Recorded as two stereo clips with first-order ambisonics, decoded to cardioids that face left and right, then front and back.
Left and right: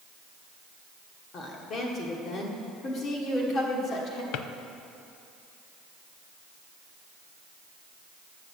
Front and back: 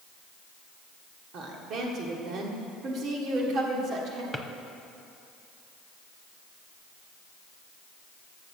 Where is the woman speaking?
140° left, 1.7 m.